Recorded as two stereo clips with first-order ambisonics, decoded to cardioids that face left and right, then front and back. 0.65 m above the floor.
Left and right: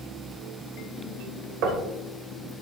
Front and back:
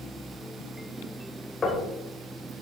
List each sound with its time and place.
1.6 s knocking: 70° right, 2.5 m